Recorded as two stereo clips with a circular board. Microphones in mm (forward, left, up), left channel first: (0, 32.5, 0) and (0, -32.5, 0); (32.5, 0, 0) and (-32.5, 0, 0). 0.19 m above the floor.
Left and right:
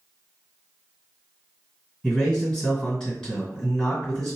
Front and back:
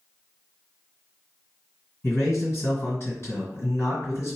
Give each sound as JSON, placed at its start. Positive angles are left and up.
{"t": 2.0, "sound": "a man speaking", "azimuth_deg": 0, "distance_m": 2.0}